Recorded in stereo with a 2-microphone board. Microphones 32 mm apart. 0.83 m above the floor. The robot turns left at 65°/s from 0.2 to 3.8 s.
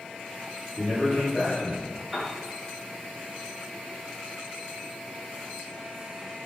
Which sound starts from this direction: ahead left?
A man speaking, at 0.8 s.